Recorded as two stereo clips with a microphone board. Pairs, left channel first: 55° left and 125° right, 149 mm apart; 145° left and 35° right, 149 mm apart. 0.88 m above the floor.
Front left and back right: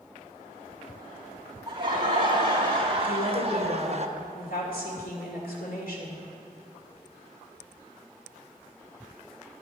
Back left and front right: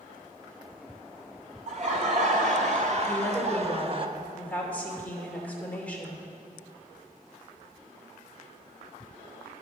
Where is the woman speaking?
65° left, 2.5 m.